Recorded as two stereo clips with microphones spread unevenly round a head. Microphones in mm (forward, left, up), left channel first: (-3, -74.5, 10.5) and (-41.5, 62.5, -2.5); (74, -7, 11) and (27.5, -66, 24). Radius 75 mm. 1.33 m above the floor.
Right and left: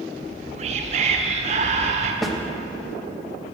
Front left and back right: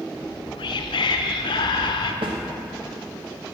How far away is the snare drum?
About 1.1 m.